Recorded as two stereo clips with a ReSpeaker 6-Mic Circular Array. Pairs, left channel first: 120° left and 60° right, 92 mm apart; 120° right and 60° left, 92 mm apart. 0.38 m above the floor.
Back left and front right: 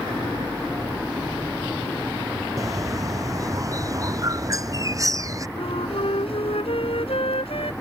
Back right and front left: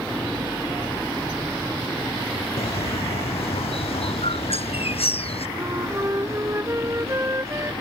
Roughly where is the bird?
Behind right.